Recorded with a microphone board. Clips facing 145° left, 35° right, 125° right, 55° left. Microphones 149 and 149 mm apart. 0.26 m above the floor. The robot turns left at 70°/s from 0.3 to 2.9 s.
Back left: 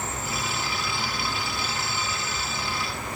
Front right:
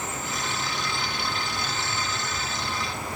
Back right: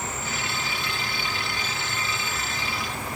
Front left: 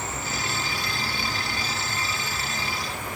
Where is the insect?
100° left, 1.0 m; by 3.2 s 85° right, 1.0 m.